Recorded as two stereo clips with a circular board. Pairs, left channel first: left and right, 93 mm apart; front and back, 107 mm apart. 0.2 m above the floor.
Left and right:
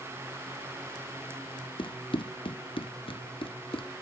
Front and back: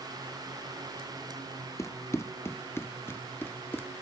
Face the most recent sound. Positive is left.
turn(degrees=70)